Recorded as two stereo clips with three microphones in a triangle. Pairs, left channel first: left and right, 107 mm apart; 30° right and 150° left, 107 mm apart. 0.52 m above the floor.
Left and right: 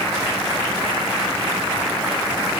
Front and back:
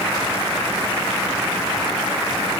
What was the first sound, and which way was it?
Only background noise.